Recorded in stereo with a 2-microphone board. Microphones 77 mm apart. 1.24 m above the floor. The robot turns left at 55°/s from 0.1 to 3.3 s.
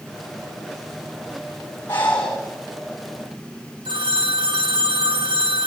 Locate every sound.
1.9 s breathing: 35° left (ahead or behind), 6 m; by 2.4 s 5° left (ahead or behind), 6 m
3.9 s a phone ringing: 85° right, 1.4 m